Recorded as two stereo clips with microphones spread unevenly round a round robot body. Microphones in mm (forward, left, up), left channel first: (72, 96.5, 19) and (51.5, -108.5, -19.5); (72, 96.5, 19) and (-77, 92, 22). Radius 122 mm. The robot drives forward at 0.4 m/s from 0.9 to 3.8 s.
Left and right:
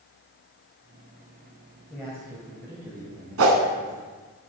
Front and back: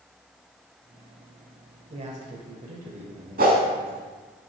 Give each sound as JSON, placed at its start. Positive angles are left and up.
{"t": 1.9, "sound": "a man speaking", "azimuth_deg": 180, "distance_m": 1.0}
{"t": 3.4, "sound": "a whoosh", "azimuth_deg": -125, "distance_m": 0.8}